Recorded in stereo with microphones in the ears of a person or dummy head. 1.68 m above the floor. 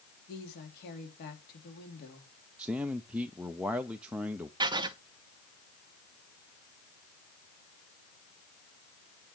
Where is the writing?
30° right (ahead or behind), 0.8 m.